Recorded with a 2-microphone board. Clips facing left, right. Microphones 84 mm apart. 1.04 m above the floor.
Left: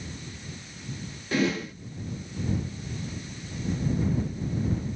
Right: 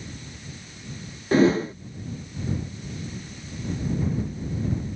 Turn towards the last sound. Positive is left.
turn(degrees=-35)  # may be behind; listen again after turning